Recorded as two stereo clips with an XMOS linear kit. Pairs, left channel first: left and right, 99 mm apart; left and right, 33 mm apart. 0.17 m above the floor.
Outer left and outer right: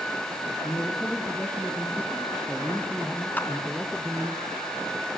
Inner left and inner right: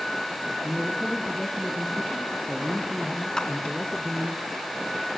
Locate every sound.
0.6 s a man speaking: 20° left (ahead or behind), 5 m; by 4.4 s 20° right (ahead or behind), 3.5 m
3.4 s a clap: 20° left (ahead or behind), 1.6 m